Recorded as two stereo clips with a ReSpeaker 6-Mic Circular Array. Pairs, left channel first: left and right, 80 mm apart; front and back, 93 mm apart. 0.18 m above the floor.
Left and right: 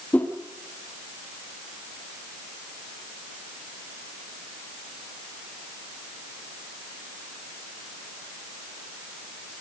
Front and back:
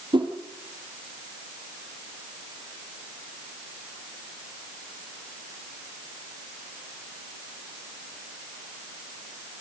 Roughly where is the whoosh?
Behind.